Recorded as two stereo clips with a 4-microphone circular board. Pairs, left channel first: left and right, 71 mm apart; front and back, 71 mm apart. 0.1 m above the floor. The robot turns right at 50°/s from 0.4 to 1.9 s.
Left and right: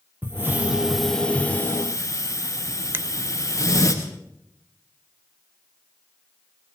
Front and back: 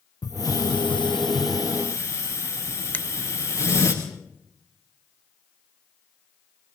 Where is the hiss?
30° right, 4.5 m; by 3.9 s 45° left, 4.5 m.